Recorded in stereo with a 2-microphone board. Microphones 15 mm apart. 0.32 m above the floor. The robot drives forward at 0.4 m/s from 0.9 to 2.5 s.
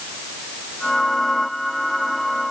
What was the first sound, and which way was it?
Only background noise.